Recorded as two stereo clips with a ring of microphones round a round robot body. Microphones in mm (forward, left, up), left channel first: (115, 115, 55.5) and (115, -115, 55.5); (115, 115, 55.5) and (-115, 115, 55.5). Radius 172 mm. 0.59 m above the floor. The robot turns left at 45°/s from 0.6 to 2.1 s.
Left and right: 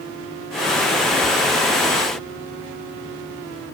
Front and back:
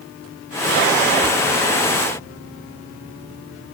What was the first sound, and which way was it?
Only background noise.